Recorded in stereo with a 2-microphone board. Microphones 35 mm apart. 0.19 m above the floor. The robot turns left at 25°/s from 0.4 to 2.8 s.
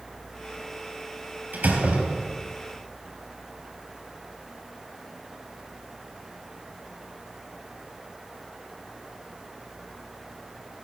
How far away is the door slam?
About 3.5 m.